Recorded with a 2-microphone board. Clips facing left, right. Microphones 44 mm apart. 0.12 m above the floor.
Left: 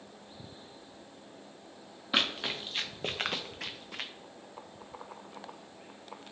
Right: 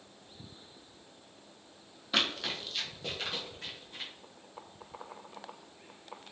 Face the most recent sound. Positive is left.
turn(degrees=85)